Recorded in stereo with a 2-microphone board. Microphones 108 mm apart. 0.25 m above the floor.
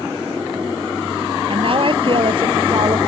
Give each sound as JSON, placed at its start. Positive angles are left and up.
{"t": 1.5, "sound": "a woman speaking", "side_deg": -55}